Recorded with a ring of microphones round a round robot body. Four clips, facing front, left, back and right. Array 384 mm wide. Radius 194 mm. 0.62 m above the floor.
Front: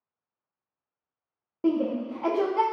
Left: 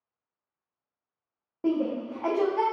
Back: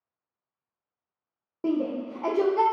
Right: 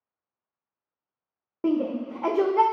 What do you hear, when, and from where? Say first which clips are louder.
1.6 s a shout: right 2 dB, front 2 dB; 80° right, 0.6 m